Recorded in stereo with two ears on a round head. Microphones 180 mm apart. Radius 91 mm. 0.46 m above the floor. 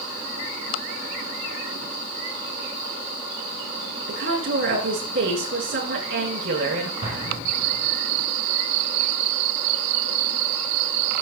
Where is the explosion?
45° right (ahead or behind), 4 m.